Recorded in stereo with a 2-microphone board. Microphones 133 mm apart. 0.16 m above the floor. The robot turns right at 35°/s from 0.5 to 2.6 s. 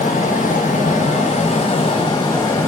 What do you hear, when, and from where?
0.0 s running water: 85° left, 1.3 m; by 2.7 s 160° left, 1.3 m